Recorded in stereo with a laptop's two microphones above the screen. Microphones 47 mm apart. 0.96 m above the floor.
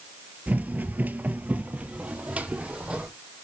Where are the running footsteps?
35° right (ahead or behind), 1.1 m; by 3.1 s 20° right (ahead or behind), 2 m.